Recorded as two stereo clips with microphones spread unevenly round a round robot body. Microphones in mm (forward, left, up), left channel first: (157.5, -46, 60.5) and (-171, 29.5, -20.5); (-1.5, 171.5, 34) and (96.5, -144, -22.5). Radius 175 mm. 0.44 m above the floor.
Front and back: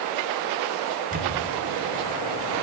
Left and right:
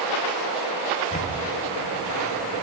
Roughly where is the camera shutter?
Behind.